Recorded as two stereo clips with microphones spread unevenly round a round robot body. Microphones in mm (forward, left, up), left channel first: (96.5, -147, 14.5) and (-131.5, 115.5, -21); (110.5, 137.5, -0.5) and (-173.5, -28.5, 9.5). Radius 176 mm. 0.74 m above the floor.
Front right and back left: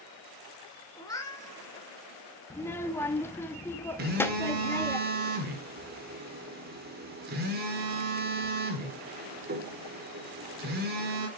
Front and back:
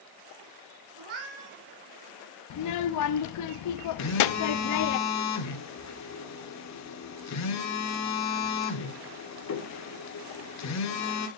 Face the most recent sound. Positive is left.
turn(degrees=70)